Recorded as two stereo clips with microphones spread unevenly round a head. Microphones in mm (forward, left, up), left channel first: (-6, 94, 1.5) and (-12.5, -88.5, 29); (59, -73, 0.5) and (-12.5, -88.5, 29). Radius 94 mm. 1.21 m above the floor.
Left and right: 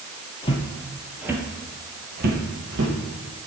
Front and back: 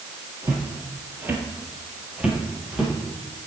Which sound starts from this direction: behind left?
Footsteps, at 0.4 s.